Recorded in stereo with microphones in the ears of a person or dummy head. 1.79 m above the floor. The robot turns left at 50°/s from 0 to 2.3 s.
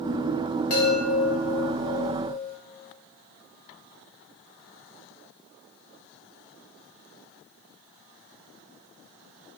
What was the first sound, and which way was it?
A chime, 130° left.